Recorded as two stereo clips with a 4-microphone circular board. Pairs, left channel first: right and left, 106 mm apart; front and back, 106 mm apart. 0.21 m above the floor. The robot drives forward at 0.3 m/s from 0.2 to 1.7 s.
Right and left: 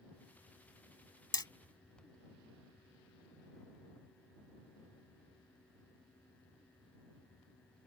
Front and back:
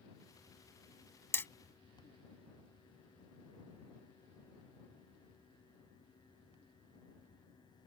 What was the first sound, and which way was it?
Hammering, 60° right.